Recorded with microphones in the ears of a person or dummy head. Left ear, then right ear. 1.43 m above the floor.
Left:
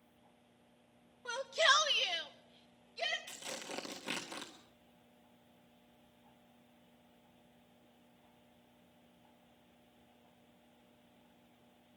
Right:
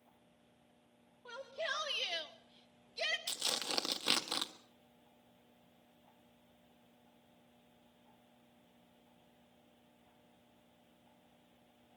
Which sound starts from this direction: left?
A shout, at 1.2 s.